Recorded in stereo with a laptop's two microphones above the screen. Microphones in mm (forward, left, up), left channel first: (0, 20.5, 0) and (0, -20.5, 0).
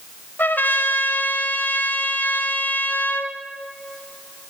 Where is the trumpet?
55° left (ahead or behind), 0.9 m.